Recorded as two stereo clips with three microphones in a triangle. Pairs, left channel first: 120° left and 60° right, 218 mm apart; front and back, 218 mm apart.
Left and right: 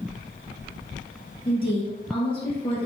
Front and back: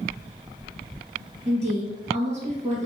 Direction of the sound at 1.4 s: 165° left.